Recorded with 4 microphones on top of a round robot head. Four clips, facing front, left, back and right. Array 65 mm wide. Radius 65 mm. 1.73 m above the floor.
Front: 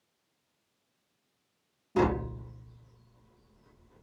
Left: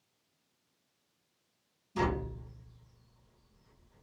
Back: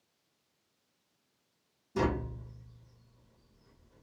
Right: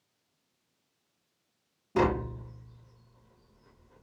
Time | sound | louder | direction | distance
1.9 | tapping | right 6 dB, front 4 dB | 65° right | 0.6 m